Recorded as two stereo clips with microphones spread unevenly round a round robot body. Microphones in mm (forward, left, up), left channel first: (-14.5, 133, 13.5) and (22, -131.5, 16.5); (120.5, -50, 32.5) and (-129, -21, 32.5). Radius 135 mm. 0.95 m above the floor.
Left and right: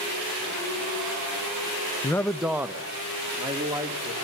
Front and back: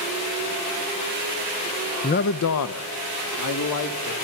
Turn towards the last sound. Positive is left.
turn(degrees=-5)